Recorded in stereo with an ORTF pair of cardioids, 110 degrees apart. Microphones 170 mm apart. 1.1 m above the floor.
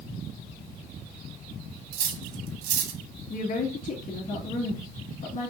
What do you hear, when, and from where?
1.9 s cutlery clinking: 70° right, 1.0 m
3.3 s a woman speaking: 50° left, 2 m